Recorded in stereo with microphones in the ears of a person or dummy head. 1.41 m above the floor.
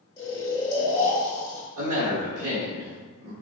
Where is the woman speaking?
50° right (ahead or behind), 0.9 m.